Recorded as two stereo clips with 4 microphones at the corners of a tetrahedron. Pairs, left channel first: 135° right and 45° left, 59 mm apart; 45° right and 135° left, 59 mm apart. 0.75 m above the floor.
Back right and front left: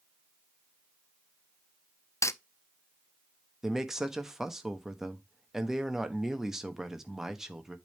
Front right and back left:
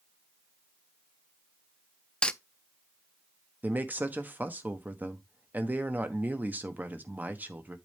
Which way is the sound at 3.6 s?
125° left.